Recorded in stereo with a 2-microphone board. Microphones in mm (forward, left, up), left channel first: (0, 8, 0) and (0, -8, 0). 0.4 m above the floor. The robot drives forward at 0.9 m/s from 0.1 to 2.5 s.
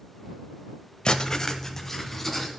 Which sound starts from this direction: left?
Writing, at 1.1 s.